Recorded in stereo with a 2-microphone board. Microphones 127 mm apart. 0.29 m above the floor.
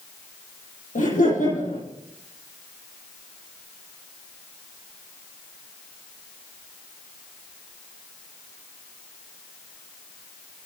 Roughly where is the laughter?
Left.